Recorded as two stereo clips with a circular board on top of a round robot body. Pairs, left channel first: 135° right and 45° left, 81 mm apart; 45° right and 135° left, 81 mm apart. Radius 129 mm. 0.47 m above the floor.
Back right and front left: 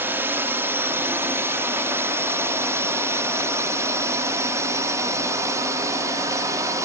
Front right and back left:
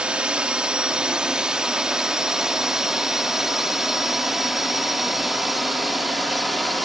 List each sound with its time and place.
0.0 s a drone: 70° left; by 6.8 s 45° left